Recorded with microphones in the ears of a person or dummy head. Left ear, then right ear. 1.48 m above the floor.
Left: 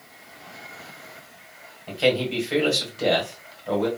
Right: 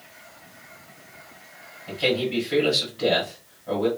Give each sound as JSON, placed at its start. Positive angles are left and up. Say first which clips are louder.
{"t": 1.9, "sound": "a man speaking", "louder": "left 2 dB", "side_deg": 50, "distance_m": 1.7}